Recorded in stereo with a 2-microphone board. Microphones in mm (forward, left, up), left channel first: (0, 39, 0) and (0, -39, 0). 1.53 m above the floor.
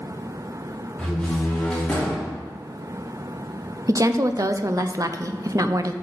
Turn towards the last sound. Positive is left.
turn(degrees=-45)  # may be behind; listen again after turning